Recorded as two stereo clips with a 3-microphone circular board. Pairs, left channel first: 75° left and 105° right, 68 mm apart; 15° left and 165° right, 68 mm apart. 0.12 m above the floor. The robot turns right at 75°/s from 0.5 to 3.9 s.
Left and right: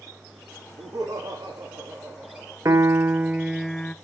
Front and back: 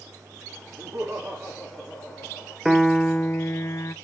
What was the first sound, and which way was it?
Laughter, 135° right.